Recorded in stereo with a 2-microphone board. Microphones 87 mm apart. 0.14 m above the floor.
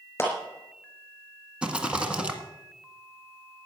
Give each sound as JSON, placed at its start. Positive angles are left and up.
{"t": 0.2, "sound": "a clap", "side_deg": 25, "distance_m": 5.0}
{"t": 1.6, "sound": "a rattle", "side_deg": -10, "distance_m": 1.7}